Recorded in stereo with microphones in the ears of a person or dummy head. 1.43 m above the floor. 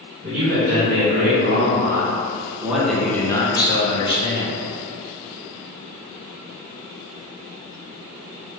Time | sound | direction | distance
0.2 | a man speaking | 60° right (ahead or behind) | 1.5 m